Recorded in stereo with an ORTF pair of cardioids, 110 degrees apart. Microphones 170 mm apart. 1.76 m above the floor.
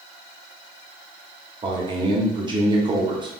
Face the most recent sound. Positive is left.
turn(degrees=-25)